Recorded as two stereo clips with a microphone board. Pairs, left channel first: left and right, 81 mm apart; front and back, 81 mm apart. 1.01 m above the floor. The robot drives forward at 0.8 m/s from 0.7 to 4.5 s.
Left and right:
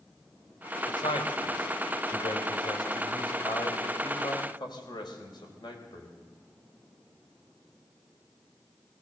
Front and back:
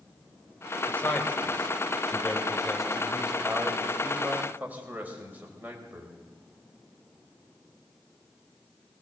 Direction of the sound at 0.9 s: 70° left.